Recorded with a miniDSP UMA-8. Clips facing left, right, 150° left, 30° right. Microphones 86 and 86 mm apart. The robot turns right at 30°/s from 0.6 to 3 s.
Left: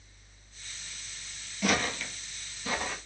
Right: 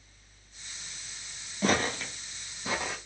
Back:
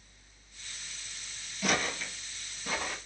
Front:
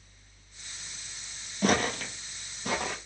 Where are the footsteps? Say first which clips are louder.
Right 2 dB, front 5 dB; 50° right, 0.8 m; by 3.0 s 15° right, 1.6 m.